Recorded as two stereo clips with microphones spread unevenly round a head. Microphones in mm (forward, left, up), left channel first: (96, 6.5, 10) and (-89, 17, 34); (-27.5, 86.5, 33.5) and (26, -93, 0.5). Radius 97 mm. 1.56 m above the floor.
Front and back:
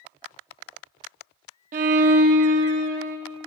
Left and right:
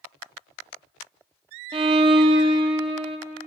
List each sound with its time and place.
1.7 s a violin: 130° right, 0.7 m